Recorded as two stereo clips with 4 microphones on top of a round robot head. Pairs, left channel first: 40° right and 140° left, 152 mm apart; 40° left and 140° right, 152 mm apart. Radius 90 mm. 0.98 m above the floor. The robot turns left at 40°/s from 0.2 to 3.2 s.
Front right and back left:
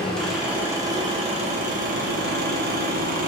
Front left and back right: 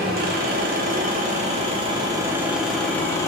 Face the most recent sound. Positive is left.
turn(degrees=110)